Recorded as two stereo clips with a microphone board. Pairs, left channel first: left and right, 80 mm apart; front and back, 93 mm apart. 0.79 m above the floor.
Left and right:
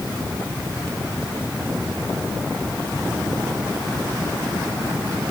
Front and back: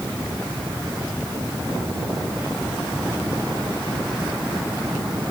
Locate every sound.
Only background noise.